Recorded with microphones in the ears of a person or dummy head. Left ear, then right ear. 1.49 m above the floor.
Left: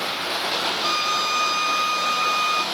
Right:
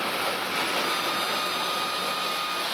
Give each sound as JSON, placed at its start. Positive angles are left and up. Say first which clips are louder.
{"t": 0.8, "sound": "a violin", "louder": "left 5 dB", "side_deg": 40}